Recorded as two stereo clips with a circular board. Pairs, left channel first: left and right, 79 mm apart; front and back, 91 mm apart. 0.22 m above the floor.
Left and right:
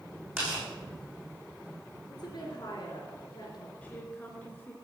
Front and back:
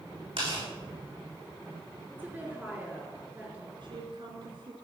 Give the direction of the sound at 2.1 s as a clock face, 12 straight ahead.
9 o'clock.